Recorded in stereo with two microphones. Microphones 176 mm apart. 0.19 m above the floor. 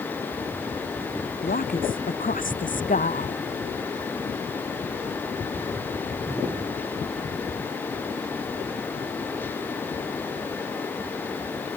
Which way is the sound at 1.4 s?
55° left (ahead or behind).